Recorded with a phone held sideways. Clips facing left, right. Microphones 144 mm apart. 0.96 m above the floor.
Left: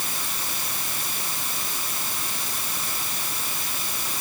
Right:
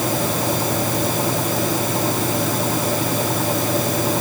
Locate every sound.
0.0 s a fan: 80° right